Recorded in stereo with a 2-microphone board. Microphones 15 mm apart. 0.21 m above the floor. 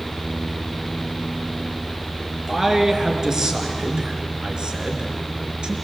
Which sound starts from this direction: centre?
A man speaking, at 2.5 s.